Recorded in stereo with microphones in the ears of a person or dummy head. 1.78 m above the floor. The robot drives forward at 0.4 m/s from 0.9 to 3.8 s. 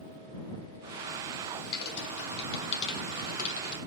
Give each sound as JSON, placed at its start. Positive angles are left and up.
{"t": 1.7, "sound": "typing on a keyboard", "side_deg": 55, "distance_m": 3.0}